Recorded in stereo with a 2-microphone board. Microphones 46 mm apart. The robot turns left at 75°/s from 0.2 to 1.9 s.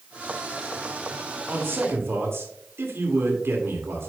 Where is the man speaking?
45° right, 2.5 m; by 4.1 s 75° right, 2.5 m.